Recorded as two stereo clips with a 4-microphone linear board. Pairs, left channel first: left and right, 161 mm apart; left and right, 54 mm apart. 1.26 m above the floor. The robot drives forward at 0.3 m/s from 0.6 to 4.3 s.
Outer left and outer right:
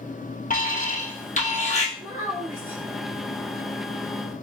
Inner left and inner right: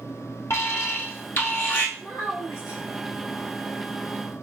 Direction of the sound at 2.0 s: 55° left (ahead or behind).